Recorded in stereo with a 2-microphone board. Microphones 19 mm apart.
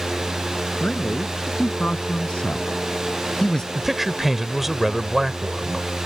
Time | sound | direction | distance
0.8 | a man speaking | 75° left (ahead or behind) | ?
3.8 | a man speaking | 10° right (ahead or behind) | ?